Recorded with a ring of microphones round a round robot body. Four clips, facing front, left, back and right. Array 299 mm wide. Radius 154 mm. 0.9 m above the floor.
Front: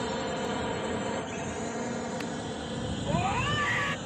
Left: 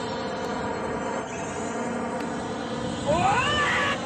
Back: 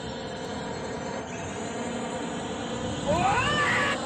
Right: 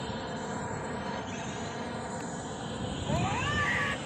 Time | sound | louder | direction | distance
0.0 | a drone | left 7 dB, front 3 dB | 65° left | ?
3.0 | a scream | left 10 dB, back 6 dB | 115° left | ?